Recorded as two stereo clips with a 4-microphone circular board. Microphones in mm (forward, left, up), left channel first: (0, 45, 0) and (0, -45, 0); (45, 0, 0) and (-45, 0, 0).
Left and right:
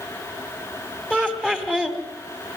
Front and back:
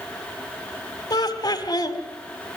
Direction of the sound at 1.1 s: 10° left.